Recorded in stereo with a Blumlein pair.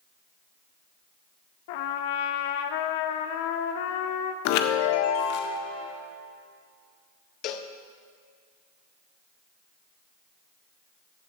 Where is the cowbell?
35° left, 0.8 m.